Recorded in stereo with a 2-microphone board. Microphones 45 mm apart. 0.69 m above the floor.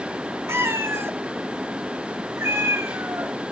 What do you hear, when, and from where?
0.5 s a cat meowing: 85° right, 1.2 m